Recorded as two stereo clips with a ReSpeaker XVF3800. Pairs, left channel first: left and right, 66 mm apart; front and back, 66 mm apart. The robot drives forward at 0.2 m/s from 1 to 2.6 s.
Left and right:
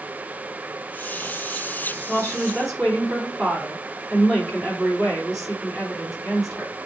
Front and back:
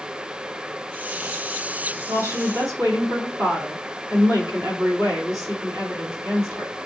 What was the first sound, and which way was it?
A woman speaking, 175° right.